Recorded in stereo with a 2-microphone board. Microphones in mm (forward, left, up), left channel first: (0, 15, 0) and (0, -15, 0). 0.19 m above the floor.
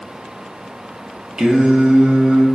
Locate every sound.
1.4 s singing: 30° right (ahead or behind), 0.6 m